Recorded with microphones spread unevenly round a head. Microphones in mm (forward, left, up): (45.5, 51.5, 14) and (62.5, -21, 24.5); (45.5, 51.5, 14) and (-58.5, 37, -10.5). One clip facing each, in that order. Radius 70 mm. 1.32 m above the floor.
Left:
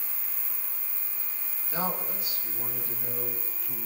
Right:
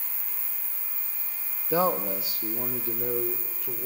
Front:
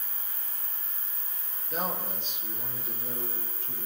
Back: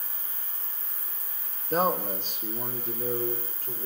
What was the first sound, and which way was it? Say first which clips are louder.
A man speaking: right 8 dB, back 8 dB; 110° right.